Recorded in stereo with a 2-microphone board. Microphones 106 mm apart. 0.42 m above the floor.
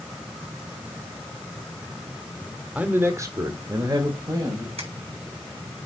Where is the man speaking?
15° right (ahead or behind), 1.1 m; by 4.7 s 35° right (ahead or behind), 2.5 m.